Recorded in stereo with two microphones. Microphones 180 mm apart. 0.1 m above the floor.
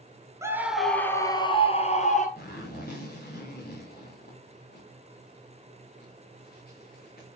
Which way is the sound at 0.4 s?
15° right (ahead or behind).